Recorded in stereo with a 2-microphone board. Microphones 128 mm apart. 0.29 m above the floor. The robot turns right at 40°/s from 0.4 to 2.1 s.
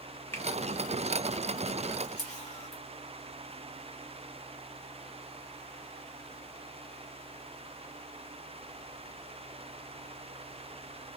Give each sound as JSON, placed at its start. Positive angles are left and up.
{"t": 0.3, "sound": "a finger snap", "side_deg": 20, "distance_m": 0.8}
{"t": 2.0, "sound": "a camera shutter", "side_deg": 55, "distance_m": 1.2}